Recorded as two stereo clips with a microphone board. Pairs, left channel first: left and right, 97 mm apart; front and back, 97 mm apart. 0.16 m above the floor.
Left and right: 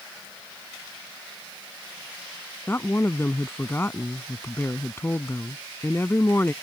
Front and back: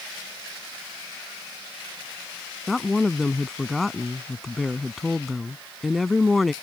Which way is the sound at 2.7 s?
90° left.